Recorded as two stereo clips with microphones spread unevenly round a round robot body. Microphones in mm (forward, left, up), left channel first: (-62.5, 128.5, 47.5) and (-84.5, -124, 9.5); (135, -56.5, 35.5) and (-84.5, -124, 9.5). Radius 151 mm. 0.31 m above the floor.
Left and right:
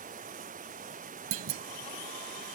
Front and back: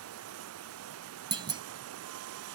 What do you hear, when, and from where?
0.0 s running water: 155° right
1.3 s a clunk: 95° right